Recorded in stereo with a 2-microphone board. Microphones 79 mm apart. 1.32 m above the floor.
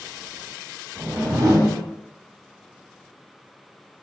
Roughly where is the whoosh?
Right.